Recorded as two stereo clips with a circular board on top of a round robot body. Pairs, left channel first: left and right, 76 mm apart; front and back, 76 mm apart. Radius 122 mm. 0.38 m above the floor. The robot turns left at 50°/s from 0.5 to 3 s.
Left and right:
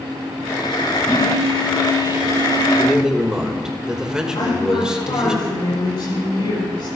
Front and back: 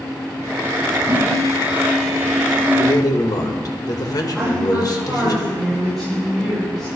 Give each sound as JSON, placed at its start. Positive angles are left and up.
{"t": 1.1, "sound": "a phone buzzing", "azimuth_deg": 150, "distance_m": 5.0}
{"t": 2.8, "sound": "a man speaking", "azimuth_deg": 0, "distance_m": 2.0}
{"t": 4.3, "sound": "a woman speaking", "azimuth_deg": 90, "distance_m": 7.5}